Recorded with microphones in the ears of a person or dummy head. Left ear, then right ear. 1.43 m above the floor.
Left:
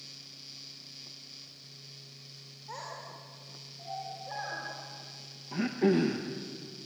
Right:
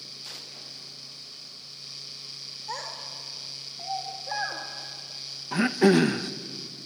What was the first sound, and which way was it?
A child speaking, 35° right (ahead or behind).